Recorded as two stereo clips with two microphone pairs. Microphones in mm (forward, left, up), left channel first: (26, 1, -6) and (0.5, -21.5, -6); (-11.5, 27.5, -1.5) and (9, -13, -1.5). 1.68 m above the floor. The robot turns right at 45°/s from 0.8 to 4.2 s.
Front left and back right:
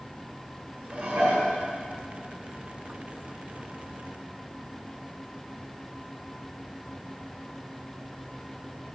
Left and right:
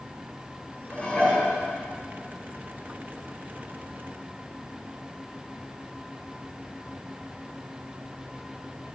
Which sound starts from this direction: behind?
Dishes clattering, at 0.9 s.